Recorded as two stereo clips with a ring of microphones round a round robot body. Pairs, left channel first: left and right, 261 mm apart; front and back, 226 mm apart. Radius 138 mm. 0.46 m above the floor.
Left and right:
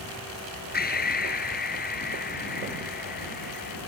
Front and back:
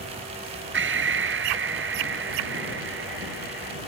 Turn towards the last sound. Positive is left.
turn(degrees=145)